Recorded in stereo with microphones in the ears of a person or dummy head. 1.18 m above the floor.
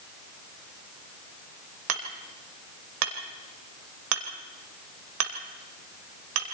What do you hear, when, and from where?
1.9 s hammering: 85° right, 3 m